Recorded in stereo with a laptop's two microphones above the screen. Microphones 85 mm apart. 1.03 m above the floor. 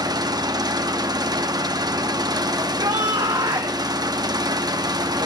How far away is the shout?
About 1.5 m.